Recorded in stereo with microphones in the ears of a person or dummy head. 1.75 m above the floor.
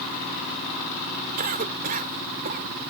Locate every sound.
1.4 s a cough: 50° right (ahead or behind)